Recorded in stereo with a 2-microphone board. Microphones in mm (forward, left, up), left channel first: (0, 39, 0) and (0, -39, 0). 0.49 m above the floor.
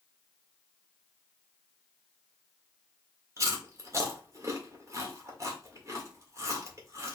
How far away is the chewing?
About 1.7 m.